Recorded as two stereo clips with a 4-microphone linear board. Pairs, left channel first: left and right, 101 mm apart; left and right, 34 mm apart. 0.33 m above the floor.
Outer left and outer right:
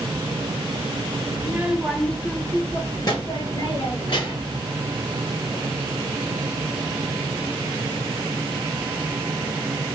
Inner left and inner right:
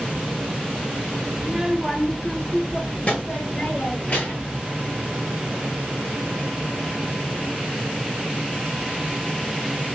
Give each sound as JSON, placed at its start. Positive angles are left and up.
{"t": 1.4, "sound": "a child speaking", "side_deg": -20, "distance_m": 0.7}